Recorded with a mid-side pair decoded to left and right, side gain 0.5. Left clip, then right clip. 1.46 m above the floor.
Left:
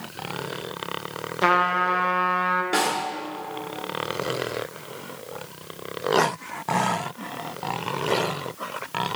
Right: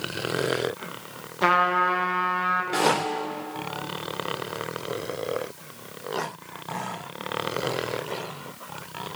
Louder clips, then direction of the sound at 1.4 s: Even; 5° left.